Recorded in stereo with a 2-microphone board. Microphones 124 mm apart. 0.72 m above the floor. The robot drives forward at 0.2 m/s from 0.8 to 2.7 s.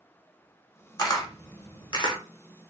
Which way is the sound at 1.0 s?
30° left (ahead or behind).